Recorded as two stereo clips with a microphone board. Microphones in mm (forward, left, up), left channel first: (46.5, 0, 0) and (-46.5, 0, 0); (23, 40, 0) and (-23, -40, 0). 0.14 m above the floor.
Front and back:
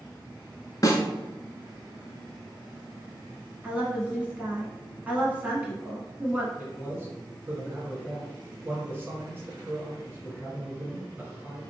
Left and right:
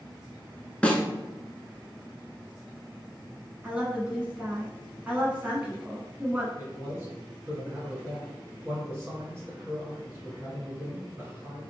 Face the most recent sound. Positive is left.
turn(degrees=-140)